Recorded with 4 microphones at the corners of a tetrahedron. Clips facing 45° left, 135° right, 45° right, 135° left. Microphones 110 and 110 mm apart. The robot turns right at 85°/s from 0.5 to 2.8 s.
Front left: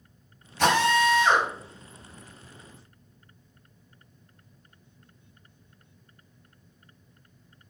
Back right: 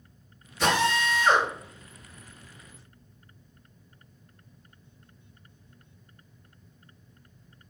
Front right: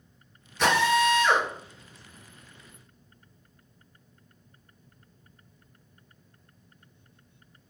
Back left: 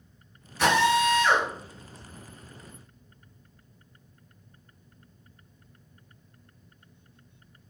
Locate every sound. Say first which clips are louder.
0.6 s a drill: front left 3 dB, back left 1 dB; 50° left, 1.8 m; by 1.5 s 125° left, 1.8 m